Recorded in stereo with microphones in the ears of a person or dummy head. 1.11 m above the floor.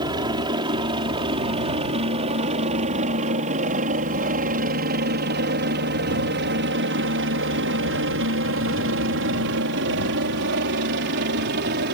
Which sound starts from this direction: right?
A helicopter, at 0.0 s.